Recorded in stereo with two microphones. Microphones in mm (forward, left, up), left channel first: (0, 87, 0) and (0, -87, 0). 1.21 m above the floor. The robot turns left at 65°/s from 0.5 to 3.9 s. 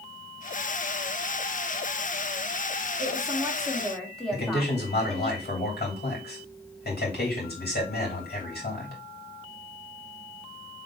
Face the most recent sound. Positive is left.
turn(degrees=65)  # may be behind; listen again after turning